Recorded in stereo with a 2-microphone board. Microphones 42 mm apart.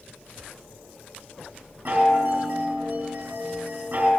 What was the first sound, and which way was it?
A chime, 60° right (ahead or behind).